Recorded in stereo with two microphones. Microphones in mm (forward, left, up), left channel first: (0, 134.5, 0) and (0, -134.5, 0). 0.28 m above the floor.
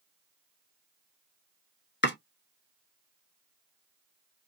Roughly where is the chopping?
Left.